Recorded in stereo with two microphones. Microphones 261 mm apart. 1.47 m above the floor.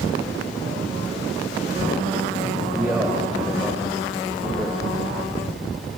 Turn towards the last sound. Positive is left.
turn(degrees=-10)  # may be behind; listen again after turning